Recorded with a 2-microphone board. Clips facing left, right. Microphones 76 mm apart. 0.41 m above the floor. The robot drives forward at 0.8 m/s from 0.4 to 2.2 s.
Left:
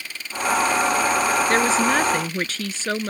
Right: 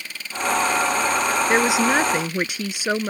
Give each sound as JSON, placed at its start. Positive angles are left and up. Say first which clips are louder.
{"t": 1.5, "sound": "a woman speaking", "louder": "right 3 dB", "side_deg": -10}